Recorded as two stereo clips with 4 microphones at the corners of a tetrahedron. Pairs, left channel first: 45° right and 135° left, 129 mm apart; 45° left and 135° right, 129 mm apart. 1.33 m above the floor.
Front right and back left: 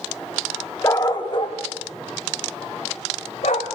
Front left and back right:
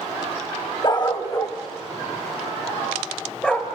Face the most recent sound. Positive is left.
turn(degrees=-35)